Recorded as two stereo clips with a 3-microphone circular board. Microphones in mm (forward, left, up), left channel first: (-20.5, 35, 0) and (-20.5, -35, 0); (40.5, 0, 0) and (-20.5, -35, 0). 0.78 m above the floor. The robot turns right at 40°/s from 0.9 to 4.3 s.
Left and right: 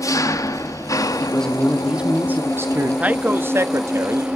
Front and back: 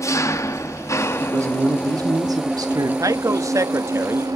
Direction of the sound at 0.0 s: 65° left.